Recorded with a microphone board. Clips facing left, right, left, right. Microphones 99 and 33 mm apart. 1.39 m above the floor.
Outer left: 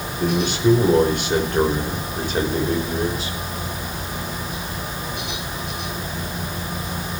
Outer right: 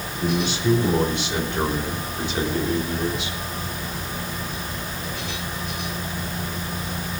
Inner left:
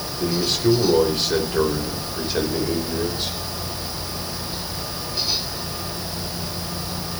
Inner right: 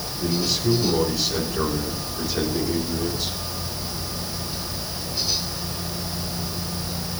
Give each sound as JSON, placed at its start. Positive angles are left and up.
{"t": 0.2, "sound": "a man speaking", "side_deg": 55, "distance_m": 5.0}